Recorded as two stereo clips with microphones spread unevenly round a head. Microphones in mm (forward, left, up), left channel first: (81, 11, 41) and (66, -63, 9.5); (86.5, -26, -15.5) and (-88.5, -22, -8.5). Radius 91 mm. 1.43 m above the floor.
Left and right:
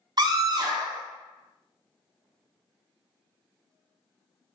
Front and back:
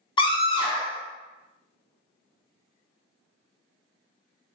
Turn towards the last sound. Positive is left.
turn(degrees=-65)